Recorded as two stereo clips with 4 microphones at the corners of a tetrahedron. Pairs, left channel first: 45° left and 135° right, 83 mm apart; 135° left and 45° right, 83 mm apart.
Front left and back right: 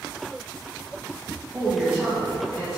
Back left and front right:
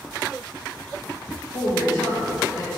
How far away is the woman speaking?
About 1.9 m.